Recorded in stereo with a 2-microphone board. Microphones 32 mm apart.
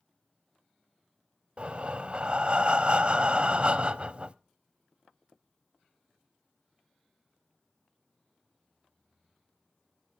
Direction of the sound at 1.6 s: 35° right (ahead or behind).